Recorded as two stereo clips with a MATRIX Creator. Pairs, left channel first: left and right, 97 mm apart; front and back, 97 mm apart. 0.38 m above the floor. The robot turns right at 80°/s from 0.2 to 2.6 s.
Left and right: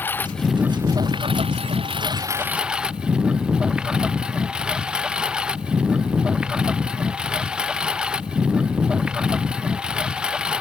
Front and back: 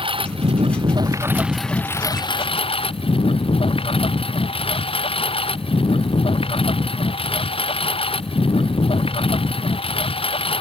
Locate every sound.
0.0 s a lawn mower: 160° left; by 10.6 s 10° right